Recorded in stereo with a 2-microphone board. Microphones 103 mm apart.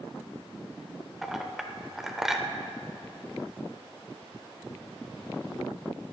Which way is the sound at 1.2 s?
5° right (ahead or behind).